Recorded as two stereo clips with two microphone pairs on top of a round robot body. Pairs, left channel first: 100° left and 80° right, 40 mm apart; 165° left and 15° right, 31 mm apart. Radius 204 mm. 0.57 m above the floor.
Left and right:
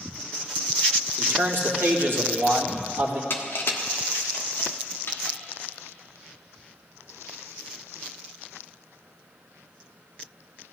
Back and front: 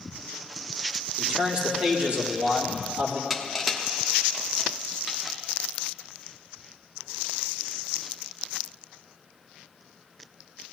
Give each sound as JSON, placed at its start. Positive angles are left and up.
{"t": 1.2, "sound": "a man speaking", "azimuth_deg": -80, "distance_m": 2.0}
{"t": 3.3, "sound": "crushing", "azimuth_deg": 70, "distance_m": 1.3}